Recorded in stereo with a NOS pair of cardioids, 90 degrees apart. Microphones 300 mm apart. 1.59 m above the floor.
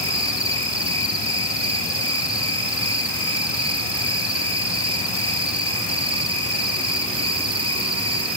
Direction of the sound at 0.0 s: 20° right.